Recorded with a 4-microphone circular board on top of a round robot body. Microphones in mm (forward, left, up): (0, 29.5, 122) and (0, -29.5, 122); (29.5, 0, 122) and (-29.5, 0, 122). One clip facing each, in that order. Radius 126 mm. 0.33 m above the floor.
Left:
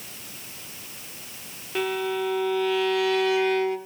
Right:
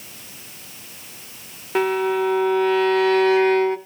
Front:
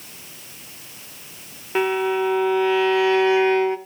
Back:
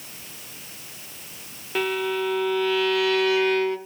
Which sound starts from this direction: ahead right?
A violin, at 1.8 s.